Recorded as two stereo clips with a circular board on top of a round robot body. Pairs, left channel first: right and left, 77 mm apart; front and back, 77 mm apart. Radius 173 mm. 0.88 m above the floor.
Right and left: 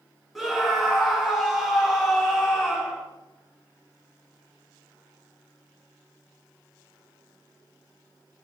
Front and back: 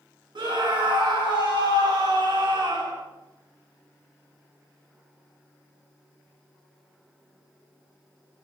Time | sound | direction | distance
0.3 | a scream | straight behind | 1.6 m